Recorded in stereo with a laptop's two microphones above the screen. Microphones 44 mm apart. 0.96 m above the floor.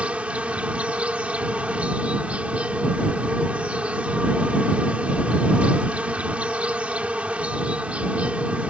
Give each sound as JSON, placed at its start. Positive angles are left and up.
{"t": 0.0, "sound": "an insect", "side_deg": -30}